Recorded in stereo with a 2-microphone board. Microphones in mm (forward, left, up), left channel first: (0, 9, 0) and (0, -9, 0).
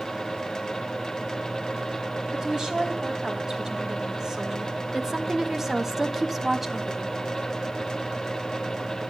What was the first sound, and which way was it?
A woman speaking, 30° right (ahead or behind).